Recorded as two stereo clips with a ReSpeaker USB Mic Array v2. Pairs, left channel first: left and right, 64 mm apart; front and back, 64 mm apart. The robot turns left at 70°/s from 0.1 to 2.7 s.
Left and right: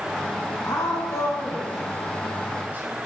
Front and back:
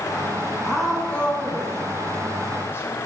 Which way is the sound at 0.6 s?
105° left.